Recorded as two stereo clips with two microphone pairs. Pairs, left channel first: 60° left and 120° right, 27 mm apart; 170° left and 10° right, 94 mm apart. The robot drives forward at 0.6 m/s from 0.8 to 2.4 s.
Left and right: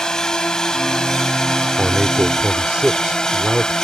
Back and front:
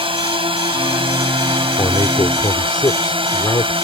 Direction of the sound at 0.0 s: Straight ahead.